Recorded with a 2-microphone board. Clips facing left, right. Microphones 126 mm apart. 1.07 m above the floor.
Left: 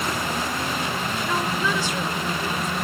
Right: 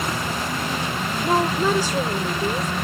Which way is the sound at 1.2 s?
40° right (ahead or behind).